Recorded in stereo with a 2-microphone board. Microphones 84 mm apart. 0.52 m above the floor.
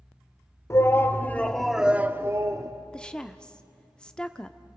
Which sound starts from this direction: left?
A shout, at 0.7 s.